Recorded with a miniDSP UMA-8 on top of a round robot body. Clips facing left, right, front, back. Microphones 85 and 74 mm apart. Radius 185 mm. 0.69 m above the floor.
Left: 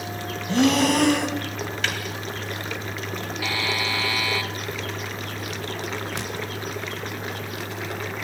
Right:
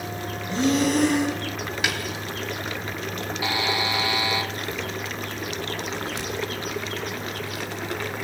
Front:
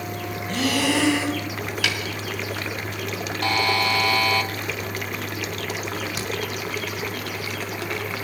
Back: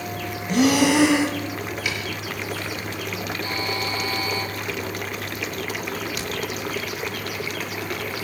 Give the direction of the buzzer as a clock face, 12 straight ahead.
1 o'clock.